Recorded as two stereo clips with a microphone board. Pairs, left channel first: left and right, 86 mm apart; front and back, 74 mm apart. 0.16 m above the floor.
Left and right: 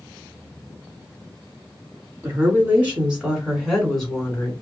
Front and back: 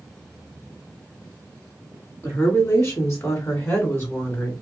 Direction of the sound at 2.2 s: 30° right.